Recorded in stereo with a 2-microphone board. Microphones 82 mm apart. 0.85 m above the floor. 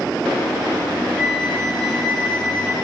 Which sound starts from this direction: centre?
A flute, at 1.2 s.